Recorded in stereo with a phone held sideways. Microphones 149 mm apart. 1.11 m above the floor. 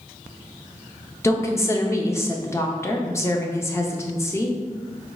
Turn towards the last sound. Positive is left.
turn(degrees=20)  # may be behind; listen again after turning